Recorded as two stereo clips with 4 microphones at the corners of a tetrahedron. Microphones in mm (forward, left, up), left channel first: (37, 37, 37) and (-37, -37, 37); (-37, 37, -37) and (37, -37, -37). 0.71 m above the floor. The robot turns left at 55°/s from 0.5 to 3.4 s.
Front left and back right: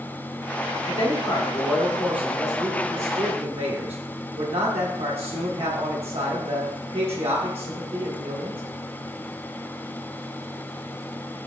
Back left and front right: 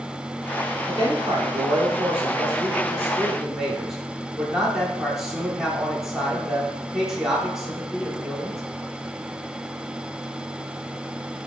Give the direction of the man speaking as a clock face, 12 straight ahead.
12 o'clock.